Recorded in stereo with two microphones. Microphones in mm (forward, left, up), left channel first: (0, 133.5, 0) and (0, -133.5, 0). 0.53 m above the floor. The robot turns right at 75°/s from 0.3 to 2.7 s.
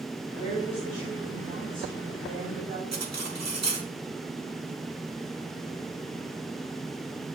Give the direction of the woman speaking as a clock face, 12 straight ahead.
7 o'clock.